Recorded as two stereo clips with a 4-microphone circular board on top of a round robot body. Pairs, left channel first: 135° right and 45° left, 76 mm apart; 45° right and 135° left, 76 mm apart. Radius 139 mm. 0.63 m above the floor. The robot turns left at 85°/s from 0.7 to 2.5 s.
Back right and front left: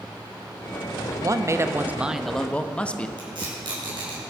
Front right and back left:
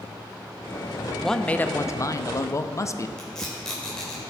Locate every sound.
1.2 s a man speaking: 45° left, 0.9 m; by 3.1 s 65° right, 0.9 m
3.2 s tape being pulled: 40° left, 4 m